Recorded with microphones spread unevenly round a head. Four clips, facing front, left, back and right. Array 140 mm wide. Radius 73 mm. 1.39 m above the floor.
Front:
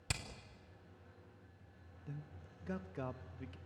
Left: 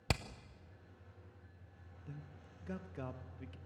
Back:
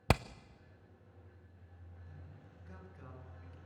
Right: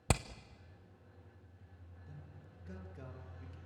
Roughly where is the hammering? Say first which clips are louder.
Right 4 dB, back 15 dB; behind.